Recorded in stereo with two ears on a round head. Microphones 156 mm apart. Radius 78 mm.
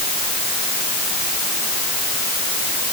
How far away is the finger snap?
I don't hear a finger snap.